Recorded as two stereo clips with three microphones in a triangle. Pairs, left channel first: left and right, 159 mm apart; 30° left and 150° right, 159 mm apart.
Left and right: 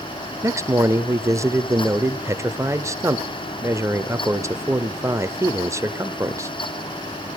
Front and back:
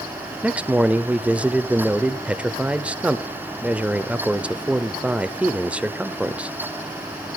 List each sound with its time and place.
0.4 s a man speaking: 85° right, 0.8 m